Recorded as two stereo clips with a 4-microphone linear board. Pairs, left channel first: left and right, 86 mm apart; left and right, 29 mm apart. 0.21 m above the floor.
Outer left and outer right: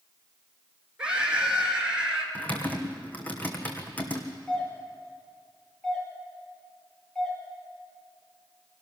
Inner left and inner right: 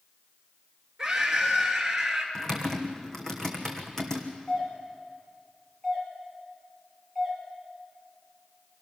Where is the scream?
10° right (ahead or behind), 4 m.